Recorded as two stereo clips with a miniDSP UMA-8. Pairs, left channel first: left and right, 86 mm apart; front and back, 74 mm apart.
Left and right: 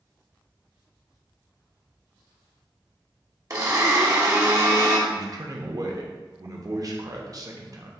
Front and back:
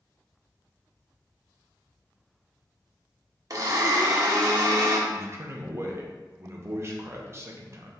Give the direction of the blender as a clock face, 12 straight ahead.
5 o'clock.